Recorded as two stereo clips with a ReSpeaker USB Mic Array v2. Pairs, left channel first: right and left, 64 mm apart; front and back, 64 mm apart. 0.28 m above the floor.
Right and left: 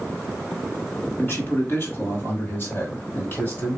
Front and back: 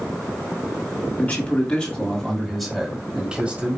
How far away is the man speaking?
About 2 m.